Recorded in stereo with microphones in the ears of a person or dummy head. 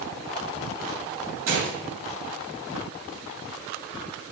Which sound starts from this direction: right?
A gunshot, at 1.5 s.